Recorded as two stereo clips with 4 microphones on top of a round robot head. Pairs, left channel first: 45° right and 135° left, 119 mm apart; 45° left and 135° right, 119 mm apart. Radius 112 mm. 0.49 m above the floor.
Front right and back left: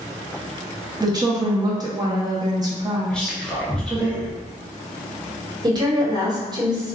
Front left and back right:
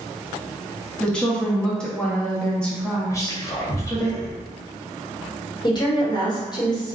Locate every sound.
1.0 s a woman speaking: 120° left, 0.9 m
3.1 s whispering: 30° left, 0.7 m
5.6 s a woman speaking: 90° left, 1.2 m